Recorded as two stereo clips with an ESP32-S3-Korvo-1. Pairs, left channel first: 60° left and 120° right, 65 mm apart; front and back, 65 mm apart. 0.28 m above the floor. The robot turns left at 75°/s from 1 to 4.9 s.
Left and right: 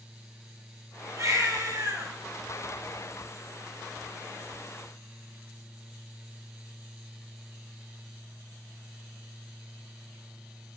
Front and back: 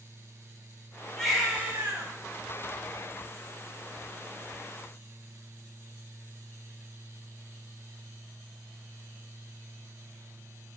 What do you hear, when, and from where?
1.2 s a baby crying: 80° right, 6 m; by 2.1 s 150° right, 6 m